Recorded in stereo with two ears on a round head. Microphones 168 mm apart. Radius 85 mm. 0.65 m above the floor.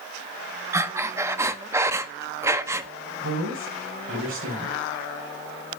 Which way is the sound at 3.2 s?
70° right (ahead or behind).